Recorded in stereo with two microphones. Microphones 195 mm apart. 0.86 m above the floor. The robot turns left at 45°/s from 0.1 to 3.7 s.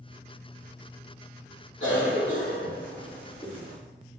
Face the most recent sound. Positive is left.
turn(degrees=10)  # may be behind; listen again after turning